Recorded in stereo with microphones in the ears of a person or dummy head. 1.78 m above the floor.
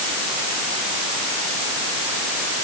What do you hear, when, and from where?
Only background noise.